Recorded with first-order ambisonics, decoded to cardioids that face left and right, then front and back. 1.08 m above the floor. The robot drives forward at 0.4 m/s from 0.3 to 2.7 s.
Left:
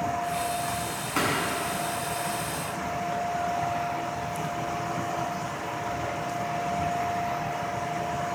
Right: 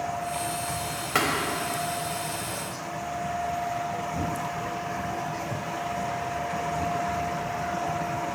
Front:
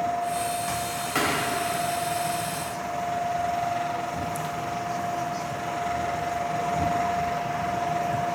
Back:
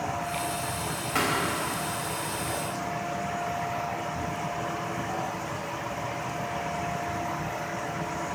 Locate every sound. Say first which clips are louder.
1.1 s a thud: right 2 dB, front 1 dB; 85° right, 3 m